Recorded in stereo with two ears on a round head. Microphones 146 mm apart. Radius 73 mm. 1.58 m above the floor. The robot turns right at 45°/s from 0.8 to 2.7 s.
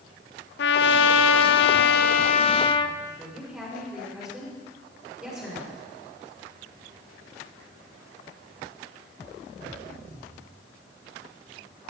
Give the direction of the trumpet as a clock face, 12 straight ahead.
10 o'clock.